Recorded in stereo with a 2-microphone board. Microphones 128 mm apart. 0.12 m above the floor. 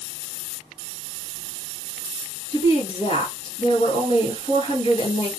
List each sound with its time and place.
2.5 s a woman speaking: 45° left (ahead or behind), 1.8 m